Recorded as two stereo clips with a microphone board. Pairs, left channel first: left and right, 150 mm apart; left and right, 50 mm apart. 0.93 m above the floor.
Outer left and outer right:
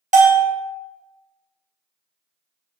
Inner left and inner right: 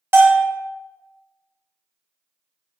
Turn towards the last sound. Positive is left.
turn(degrees=-55)  # may be behind; listen again after turning